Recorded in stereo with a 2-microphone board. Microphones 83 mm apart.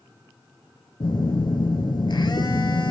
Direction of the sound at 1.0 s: 70° left (ahead or behind).